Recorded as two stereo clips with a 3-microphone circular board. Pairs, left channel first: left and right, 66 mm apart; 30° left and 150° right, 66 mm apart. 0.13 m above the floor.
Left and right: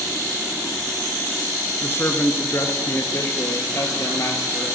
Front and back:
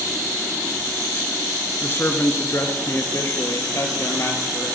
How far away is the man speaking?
About 1.4 m.